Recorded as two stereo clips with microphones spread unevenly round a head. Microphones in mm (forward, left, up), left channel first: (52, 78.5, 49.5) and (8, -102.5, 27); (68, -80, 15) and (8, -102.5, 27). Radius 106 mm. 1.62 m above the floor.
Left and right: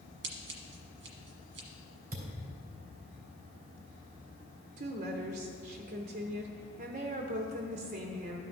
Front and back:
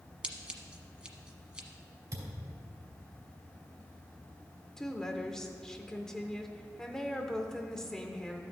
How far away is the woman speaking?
About 0.6 m.